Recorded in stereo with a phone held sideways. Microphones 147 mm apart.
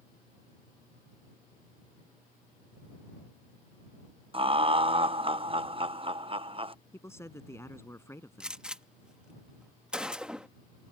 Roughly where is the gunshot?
Centre.